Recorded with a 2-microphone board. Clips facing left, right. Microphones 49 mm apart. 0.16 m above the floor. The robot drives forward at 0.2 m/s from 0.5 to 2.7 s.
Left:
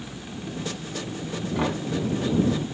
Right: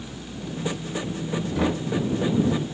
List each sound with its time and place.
1.6 s knocking: 20° left (ahead or behind), 0.9 m